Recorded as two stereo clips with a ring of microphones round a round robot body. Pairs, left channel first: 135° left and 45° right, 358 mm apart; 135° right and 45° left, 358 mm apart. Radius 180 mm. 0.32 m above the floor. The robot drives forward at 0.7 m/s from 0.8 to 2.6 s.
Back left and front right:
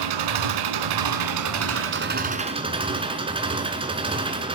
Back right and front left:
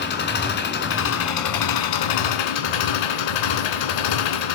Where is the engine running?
70° right, 1.4 m; by 4.5 s 120° right, 1.6 m.